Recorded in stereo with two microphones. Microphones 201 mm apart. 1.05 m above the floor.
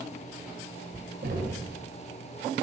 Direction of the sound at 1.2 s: 50° right (ahead or behind).